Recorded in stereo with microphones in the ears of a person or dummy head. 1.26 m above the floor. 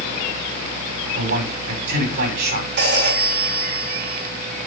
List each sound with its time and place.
1.1 s a man speaking: 55° right (ahead or behind), 5 m
2.8 s a phone ringing: 55° right (ahead or behind), 5 m